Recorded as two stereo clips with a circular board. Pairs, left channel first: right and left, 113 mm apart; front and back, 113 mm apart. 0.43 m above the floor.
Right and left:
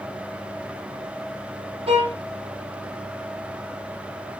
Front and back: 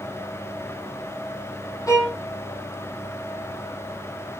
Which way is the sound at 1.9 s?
60° left.